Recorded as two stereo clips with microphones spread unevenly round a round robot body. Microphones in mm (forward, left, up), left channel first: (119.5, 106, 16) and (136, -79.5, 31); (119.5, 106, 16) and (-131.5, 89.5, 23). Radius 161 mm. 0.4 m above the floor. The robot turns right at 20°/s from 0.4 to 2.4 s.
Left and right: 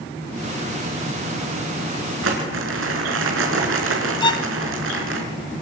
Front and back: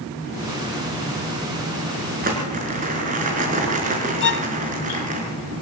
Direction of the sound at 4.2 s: 35° left.